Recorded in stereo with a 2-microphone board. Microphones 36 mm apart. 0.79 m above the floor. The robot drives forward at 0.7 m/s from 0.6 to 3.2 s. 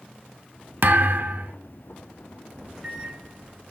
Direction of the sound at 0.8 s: 60° right (ahead or behind).